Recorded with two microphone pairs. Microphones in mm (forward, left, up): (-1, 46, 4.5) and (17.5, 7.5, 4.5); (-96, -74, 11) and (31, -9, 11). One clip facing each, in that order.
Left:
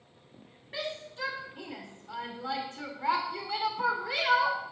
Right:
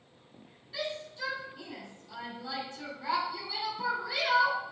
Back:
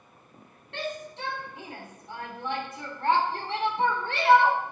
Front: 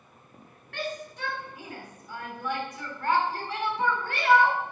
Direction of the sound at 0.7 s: 145° left.